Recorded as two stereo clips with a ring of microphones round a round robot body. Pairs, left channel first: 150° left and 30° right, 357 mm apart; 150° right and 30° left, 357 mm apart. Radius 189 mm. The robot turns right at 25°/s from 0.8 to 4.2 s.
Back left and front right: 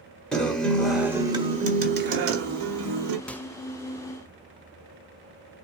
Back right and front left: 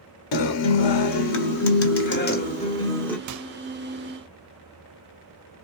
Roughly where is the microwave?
Ahead left.